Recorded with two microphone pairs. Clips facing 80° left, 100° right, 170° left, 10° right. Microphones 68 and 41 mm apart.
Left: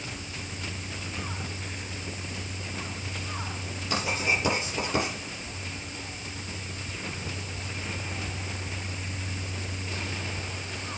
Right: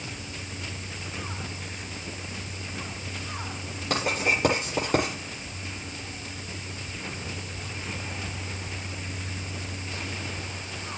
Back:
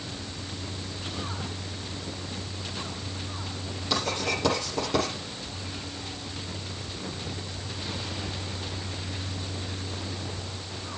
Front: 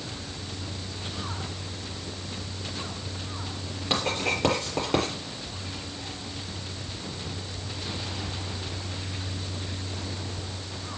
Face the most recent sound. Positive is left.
turn(degrees=-65)